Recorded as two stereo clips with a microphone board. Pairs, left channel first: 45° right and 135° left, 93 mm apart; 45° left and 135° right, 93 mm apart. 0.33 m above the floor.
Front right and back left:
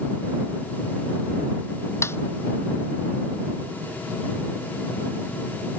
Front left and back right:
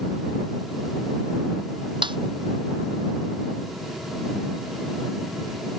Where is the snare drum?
110° right.